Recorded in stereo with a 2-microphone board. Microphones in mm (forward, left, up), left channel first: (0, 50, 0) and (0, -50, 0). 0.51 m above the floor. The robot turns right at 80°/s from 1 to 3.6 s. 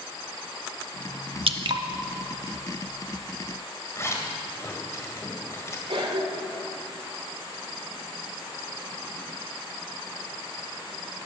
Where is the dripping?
70° right (ahead or behind), 0.6 m; by 1.8 s 40° right (ahead or behind), 0.6 m.